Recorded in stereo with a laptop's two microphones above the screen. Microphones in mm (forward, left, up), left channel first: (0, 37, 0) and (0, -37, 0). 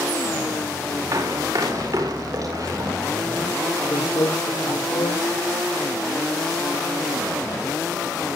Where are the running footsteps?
60° right (ahead or behind), 7 m; by 2.9 s 55° right (ahead or behind), 9 m.